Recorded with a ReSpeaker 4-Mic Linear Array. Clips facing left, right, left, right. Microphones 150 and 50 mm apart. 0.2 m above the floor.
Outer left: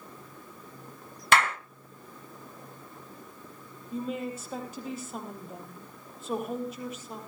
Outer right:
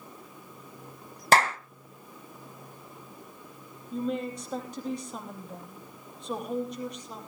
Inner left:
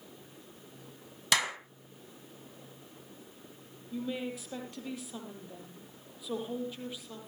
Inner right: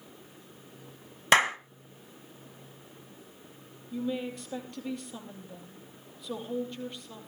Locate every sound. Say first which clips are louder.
1.3 s a clap: outer right 2 dB, inner right 7 dB; 35° right (ahead or behind), 1.4 m
3.9 s a woman speaking: outer right 2 dB, inner right 3 dB; 5° left (ahead or behind), 7 m